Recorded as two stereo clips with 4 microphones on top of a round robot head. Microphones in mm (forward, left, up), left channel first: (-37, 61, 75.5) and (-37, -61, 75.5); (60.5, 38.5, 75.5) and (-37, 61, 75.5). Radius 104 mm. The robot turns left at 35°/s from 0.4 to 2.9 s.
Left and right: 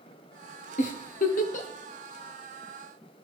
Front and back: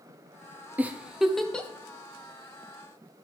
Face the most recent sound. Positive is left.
turn(degrees=20)